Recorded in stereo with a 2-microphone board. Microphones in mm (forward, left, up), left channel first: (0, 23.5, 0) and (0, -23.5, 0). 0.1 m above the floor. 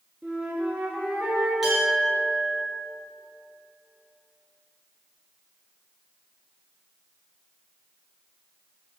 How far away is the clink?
About 1.3 m.